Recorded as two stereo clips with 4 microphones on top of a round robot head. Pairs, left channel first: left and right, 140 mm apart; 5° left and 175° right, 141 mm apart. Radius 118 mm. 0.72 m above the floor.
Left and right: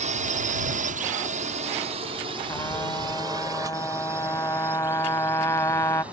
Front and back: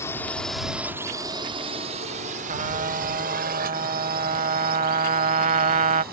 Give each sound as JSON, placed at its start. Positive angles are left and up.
{"t": 0.0, "sound": "a drone", "azimuth_deg": -65}
{"t": 2.5, "sound": "a trumpet", "azimuth_deg": 165}